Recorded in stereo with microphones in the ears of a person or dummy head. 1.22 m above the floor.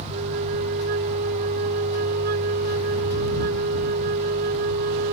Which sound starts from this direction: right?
A flute, at 0.1 s.